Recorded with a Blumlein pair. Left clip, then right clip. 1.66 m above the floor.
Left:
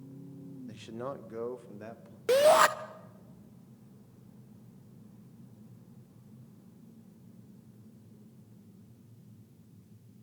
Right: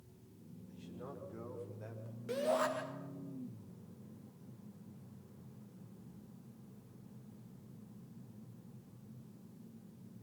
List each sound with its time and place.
0.7 s a man speaking: 40° left, 1.2 m; by 2.2 s 20° left, 2.5 m
2.3 s a shout: 35° left, 0.7 m